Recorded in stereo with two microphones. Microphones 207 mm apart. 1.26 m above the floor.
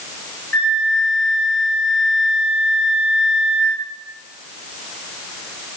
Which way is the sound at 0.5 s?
80° left.